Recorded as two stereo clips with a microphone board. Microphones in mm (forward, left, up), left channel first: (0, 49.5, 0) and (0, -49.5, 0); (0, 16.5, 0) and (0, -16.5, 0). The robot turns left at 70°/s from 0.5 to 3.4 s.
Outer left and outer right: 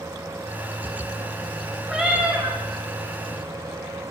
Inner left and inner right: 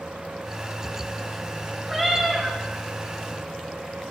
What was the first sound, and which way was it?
A cat meowing, 5° right.